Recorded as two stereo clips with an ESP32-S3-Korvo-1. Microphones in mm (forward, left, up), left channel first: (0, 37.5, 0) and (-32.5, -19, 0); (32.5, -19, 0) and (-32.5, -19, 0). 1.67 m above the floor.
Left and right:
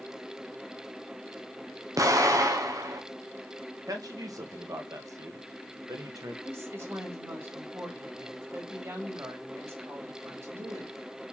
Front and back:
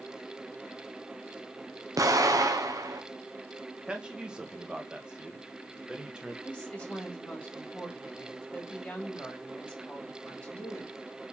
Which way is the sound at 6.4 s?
75° right.